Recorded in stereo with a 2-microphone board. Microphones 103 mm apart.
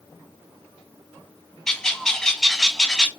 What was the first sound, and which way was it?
A bird, 5° left (ahead or behind).